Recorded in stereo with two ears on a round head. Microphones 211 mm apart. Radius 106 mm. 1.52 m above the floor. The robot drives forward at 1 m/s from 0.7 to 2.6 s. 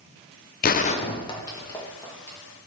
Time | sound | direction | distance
0.6 | a gunshot | 40° left (ahead or behind) | 0.5 m